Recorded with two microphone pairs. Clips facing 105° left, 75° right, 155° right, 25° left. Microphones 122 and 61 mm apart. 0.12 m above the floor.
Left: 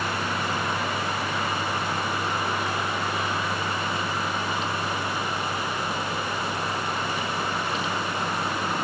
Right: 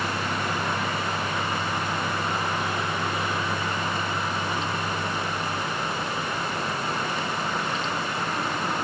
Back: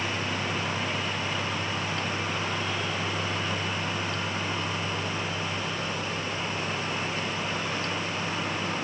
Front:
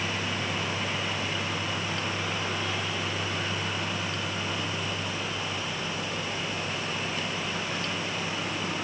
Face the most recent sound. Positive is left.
No sound to turn to.